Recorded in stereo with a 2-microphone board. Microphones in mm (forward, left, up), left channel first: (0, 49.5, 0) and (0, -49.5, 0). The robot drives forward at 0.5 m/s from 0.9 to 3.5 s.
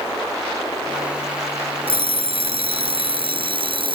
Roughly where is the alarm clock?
Right.